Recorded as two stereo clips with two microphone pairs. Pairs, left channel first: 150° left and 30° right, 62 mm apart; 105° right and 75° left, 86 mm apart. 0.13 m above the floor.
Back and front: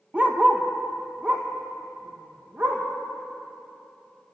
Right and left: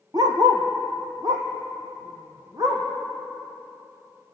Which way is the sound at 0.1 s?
40° left.